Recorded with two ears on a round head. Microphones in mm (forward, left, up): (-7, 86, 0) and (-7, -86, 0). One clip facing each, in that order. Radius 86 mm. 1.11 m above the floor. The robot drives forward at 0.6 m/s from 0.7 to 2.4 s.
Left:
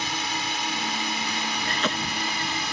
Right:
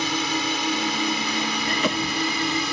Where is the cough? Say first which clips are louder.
Right 4 dB; 10° right (ahead or behind).